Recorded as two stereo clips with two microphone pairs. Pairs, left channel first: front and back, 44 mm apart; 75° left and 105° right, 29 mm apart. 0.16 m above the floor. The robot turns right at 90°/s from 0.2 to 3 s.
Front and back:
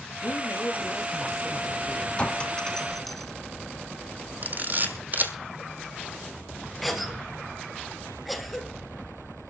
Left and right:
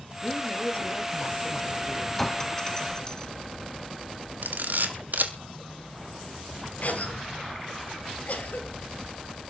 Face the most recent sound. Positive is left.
turn(degrees=95)